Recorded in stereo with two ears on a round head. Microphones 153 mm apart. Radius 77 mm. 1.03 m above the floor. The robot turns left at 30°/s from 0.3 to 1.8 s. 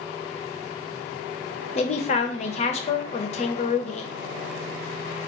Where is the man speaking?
40° left (ahead or behind), 0.5 m; by 4.1 s 35° left (ahead or behind), 0.5 m.